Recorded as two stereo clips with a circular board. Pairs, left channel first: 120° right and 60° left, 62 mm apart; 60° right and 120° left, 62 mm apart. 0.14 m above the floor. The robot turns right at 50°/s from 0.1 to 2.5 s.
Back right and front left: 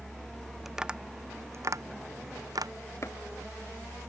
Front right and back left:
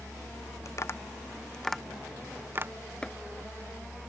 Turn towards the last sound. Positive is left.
turn(degrees=-130)